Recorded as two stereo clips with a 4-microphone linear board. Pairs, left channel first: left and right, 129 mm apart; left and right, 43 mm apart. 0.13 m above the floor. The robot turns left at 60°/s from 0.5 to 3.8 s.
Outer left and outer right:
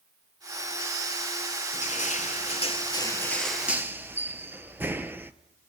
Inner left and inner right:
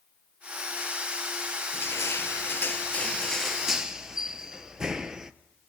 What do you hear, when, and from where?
1.7 s crushing: 110° left, 0.6 m; by 5.3 s 15° right, 0.6 m